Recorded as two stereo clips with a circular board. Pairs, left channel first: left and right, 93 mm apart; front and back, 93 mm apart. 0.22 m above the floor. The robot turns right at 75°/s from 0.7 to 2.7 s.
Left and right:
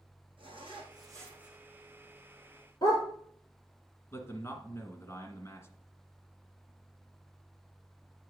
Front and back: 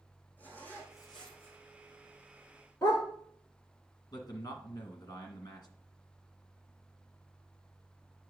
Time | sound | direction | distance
0.4 | a zipper | 70° right | 3.5 m
2.8 | a dog barking | 55° left | 2.5 m
4.1 | a man speaking | 35° left | 2 m